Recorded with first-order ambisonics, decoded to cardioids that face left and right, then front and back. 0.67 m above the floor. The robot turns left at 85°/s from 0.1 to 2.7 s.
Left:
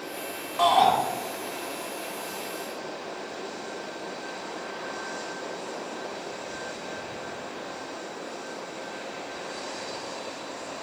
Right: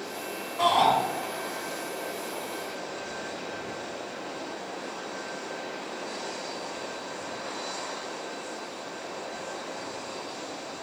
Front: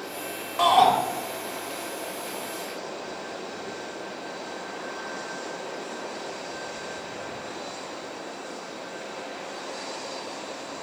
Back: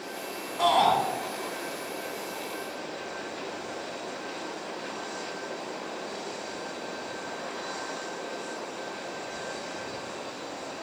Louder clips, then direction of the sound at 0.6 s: Left 2 dB, front 4 dB; 15° left.